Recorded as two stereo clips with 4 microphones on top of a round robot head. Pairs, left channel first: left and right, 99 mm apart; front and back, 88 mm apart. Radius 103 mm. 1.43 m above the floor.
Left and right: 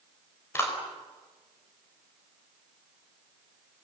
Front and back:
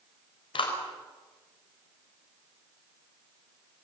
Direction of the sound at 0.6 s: 25° left.